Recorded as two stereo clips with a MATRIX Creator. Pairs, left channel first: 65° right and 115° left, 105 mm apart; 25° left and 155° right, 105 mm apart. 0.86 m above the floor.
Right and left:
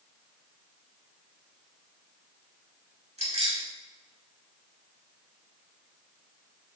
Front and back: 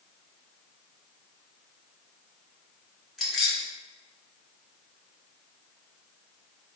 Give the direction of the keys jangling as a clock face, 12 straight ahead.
8 o'clock.